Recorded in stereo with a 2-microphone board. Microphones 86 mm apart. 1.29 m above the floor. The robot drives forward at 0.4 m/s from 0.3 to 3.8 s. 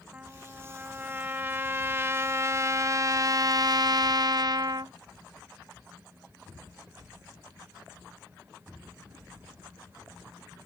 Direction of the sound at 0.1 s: 20° right (ahead or behind).